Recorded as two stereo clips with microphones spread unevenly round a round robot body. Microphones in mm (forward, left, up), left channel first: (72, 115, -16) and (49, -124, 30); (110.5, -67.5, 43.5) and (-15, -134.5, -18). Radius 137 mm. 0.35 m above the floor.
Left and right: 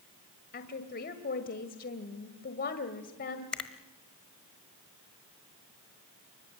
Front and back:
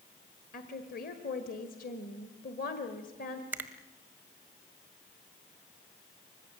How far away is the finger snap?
About 1.3 m.